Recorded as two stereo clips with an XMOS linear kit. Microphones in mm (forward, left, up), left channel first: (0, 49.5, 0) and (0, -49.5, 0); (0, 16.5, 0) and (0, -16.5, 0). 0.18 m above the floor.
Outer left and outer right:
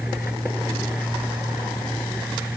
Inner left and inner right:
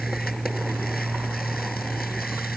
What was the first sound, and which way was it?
Only background noise.